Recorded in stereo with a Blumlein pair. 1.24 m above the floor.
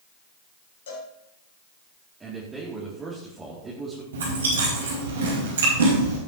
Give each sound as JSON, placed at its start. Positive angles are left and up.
{"t": 0.9, "sound": "a cowbell", "azimuth_deg": 60, "distance_m": 4.0}
{"t": 2.2, "sound": "a man speaking", "azimuth_deg": -15, "distance_m": 3.0}
{"t": 4.1, "sound": "chewing", "azimuth_deg": -65, "distance_m": 4.5}